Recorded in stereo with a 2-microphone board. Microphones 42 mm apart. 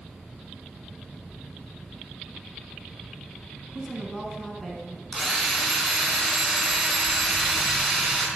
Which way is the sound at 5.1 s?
5° right (ahead or behind).